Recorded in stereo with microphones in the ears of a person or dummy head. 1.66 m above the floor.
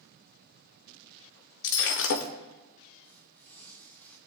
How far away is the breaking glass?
About 1.5 m.